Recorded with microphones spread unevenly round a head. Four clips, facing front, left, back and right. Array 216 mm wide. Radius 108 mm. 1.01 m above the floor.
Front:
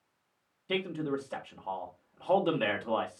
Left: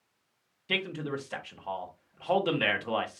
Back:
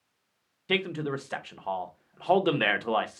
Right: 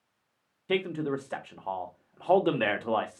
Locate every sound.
0.7 s a man speaking: 125° right, 0.9 m